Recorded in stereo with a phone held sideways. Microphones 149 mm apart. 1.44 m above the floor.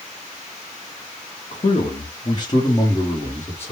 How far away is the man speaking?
About 0.7 m.